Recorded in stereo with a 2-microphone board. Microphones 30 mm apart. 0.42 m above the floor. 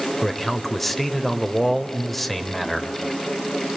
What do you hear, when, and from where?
0.2 s a man speaking: 5° left (ahead or behind), 2.0 m